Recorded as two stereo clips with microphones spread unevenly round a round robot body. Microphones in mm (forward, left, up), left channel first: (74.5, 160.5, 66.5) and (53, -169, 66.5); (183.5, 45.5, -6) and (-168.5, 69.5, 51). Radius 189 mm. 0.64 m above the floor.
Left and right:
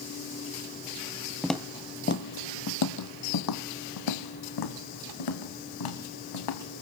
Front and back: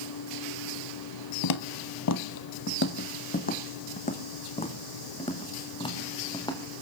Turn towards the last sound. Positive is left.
turn(degrees=75)